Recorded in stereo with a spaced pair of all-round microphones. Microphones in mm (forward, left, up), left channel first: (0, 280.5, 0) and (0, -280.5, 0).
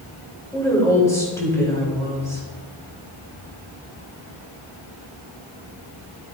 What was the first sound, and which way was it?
A woman speaking, 5° left (ahead or behind).